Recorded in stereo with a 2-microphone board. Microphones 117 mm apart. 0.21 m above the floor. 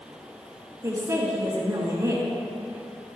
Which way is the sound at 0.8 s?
25° right (ahead or behind).